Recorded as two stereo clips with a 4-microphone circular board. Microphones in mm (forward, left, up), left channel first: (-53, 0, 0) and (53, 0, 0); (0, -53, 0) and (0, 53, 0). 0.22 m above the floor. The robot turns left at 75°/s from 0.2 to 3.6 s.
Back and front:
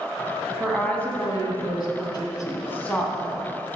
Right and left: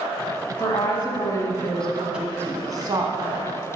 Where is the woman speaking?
80° right, 1.7 m; by 3.5 s 60° left, 1.7 m.